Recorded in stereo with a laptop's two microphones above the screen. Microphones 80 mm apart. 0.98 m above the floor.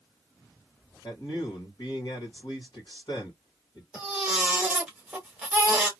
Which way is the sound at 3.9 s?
10° right (ahead or behind).